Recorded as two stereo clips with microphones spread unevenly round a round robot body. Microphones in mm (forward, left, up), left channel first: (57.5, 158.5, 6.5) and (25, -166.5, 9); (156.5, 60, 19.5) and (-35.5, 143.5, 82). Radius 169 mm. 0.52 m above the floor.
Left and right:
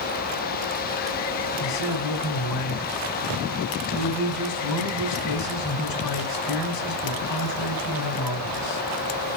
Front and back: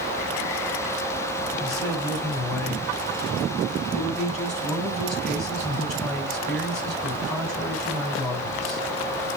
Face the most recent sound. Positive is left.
turn(degrees=50)